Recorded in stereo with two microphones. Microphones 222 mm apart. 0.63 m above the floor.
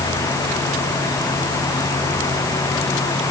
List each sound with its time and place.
Only background noise.